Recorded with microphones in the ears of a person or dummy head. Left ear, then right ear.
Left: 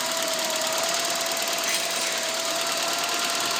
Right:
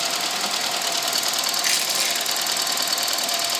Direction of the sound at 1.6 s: 60° right (ahead or behind).